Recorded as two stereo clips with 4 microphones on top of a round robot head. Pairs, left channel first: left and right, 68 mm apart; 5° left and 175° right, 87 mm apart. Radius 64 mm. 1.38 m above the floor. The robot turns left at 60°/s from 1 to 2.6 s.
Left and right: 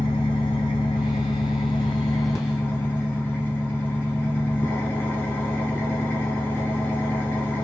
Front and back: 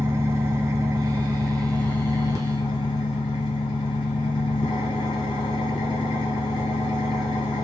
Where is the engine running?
130° left, 0.8 m; by 7.7 s 35° left, 0.8 m.